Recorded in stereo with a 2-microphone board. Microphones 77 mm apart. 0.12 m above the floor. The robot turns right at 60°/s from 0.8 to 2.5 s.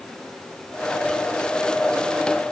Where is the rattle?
No rattle in this recording.